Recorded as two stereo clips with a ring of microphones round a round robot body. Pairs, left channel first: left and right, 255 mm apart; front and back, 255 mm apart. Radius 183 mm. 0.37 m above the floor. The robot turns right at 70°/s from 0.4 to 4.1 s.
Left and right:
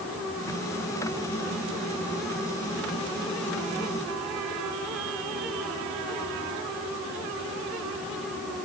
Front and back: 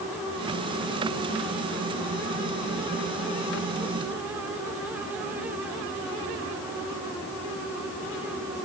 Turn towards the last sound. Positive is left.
No sound to turn to.